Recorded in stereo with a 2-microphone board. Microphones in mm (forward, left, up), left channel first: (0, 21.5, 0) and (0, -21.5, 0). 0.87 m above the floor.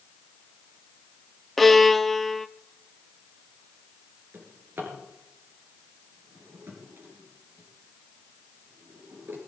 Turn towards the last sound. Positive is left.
turn(degrees=-55)  # may be behind; listen again after turning